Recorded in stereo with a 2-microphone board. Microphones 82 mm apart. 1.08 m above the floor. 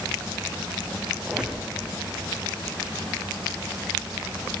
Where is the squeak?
10° right (ahead or behind), 3.5 m.